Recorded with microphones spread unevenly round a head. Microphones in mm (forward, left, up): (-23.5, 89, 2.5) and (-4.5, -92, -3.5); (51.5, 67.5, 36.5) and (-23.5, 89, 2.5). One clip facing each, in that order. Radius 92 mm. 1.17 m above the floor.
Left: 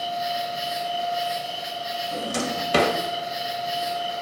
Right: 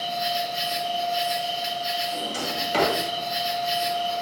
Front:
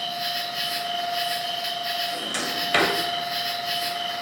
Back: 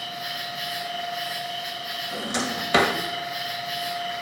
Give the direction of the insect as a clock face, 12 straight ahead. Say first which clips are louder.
Even, front 4 dB; 1 o'clock.